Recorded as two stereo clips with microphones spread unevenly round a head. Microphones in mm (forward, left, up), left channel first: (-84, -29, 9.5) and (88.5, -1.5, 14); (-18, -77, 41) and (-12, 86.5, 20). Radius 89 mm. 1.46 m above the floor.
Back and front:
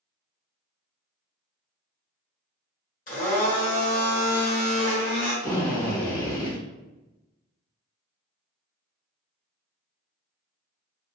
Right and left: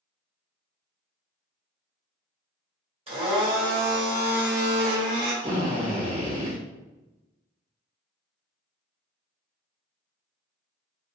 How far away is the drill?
About 1.1 m.